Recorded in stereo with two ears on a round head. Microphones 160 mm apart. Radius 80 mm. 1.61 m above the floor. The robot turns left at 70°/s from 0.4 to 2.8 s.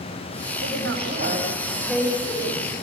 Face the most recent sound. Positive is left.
turn(degrees=120)